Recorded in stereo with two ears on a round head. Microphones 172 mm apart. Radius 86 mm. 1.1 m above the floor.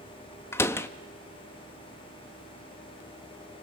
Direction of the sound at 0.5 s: 15° left (ahead or behind).